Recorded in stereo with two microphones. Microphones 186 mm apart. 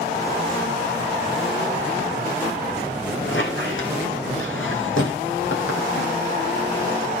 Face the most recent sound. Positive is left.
turn(degrees=80)